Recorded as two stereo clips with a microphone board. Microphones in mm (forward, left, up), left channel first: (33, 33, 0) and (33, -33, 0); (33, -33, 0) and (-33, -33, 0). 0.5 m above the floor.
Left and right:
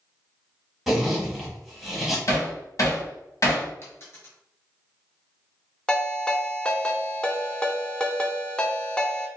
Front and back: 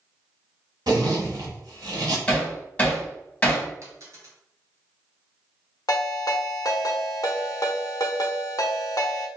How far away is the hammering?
About 1.5 m.